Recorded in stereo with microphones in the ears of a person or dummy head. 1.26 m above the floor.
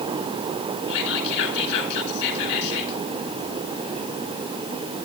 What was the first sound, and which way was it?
Whispering, 60° left (ahead or behind).